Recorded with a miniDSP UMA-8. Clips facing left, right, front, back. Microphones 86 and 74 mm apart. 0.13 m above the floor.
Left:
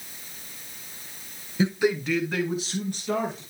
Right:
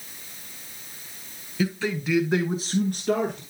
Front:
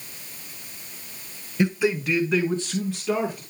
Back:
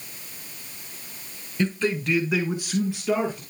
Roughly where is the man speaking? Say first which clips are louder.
Left 3 dB, front 2 dB; ahead left.